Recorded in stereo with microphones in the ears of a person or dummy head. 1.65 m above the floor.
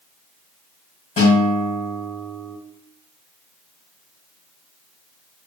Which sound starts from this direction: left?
A guitar, at 1.2 s.